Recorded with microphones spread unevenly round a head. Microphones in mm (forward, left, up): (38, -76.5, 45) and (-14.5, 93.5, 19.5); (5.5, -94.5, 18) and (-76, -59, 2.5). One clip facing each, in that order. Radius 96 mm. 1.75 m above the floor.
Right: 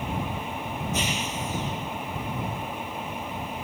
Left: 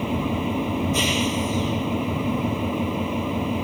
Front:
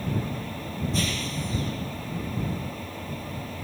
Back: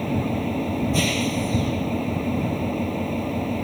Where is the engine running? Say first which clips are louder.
Left 8 dB, back 7 dB; 135° left.